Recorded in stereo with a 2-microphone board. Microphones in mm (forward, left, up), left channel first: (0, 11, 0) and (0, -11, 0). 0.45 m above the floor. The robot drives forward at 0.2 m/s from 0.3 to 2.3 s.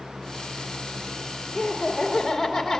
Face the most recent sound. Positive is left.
turn(degrees=-10)  # may be behind; listen again after turning